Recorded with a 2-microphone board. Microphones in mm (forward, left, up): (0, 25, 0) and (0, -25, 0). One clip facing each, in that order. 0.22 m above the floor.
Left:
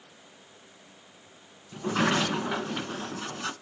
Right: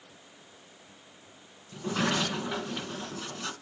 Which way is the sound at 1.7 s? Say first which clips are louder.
Left 3 dB; 20° left (ahead or behind).